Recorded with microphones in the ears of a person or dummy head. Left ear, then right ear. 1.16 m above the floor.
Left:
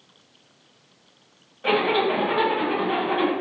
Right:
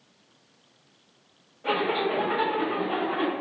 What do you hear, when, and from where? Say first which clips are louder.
1.6 s a zipper: left 5 dB; 75° left (ahead or behind), 1.7 m